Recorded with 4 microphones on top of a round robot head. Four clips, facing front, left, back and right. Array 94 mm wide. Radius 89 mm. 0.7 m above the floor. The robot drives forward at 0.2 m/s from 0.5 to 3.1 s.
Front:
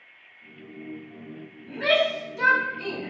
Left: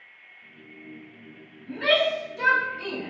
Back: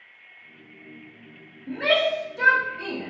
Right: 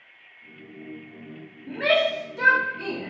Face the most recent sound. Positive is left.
turn(degrees=-140)